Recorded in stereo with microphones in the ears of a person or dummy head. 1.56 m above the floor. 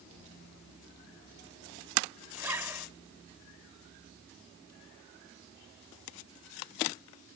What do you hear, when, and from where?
0.1 s a child speaking: 70° right (ahead or behind)
2.4 s a zipper: 10° right (ahead or behind)